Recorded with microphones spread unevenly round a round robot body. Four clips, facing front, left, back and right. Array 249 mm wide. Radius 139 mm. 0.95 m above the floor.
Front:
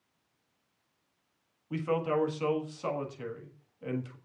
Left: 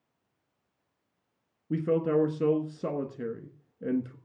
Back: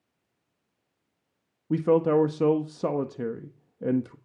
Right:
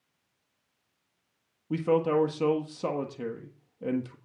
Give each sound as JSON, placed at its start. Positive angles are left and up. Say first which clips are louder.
{"t": 1.7, "sound": "a man speaking", "louder": "right 1 dB, back 9 dB", "azimuth_deg": 170, "distance_m": 1.4}